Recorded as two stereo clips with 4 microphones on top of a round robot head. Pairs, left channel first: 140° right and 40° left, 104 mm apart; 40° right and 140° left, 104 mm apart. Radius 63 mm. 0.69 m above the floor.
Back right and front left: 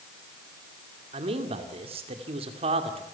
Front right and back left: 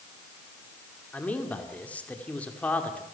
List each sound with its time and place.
1.1 s a man speaking: 35° left, 2.5 m